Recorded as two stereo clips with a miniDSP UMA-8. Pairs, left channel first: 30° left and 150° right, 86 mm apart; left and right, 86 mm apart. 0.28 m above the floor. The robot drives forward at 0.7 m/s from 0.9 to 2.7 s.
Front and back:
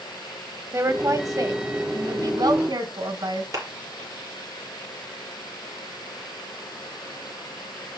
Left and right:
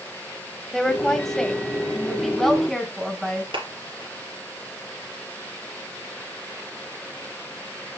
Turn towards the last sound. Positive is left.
turn(degrees=-100)